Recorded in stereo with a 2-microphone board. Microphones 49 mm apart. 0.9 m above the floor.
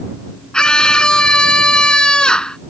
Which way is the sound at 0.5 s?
15° left (ahead or behind).